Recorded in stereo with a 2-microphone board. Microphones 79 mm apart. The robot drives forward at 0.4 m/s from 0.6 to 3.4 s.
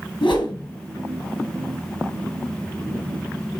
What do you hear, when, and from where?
0.2 s a whoosh: 65° left (ahead or behind), 4 m